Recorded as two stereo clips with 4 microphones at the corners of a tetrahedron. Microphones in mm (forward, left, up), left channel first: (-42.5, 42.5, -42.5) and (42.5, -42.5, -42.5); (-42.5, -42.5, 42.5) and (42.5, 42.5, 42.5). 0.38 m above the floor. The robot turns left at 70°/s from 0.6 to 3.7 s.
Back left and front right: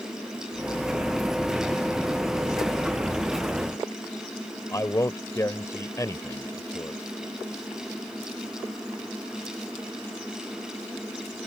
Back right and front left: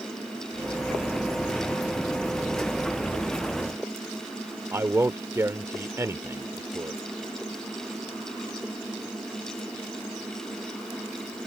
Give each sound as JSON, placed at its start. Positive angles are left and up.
{"t": 4.7, "sound": "a man speaking", "azimuth_deg": 95}